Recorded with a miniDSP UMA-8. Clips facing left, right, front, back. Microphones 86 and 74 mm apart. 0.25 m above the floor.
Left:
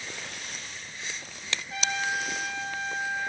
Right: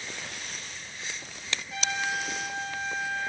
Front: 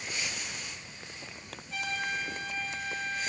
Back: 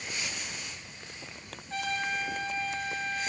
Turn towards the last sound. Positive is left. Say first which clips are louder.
# left 1 dB, back 2 dB
turn(degrees=135)